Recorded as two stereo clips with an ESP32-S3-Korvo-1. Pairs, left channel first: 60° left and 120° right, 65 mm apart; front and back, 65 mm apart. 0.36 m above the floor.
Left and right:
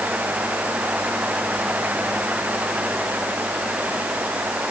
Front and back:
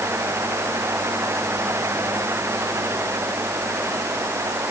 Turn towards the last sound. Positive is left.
No sound to turn to.